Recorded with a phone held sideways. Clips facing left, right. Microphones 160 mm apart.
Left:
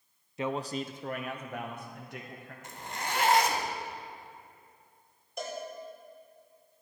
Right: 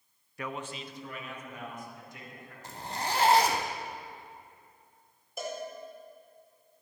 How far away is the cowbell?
About 2.5 m.